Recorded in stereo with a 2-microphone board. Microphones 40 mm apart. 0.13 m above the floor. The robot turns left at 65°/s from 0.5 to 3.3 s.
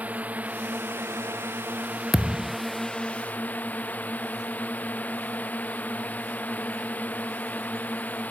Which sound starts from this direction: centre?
A thud, at 2.1 s.